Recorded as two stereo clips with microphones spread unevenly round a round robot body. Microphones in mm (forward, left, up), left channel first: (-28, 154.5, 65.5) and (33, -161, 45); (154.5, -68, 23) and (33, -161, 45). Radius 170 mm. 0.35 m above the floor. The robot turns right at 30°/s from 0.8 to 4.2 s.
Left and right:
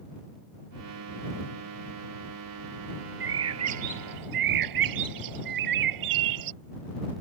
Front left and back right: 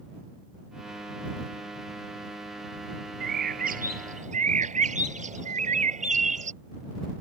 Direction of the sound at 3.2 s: 135° right.